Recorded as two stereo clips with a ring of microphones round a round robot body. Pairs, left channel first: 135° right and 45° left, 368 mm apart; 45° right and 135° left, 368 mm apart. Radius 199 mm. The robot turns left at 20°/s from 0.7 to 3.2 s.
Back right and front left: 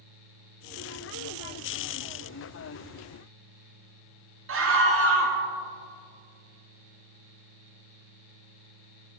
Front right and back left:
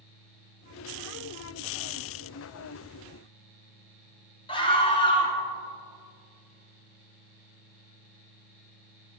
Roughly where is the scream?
Ahead left.